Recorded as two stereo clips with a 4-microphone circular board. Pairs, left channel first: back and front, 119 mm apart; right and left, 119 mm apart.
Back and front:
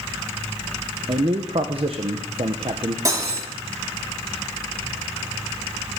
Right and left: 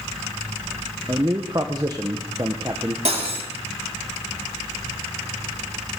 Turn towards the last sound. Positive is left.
turn(degrees=60)